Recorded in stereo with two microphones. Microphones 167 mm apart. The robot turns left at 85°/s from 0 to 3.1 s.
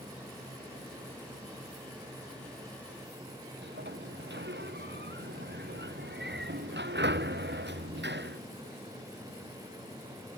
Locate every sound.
3.6 s a sliding door: 85° right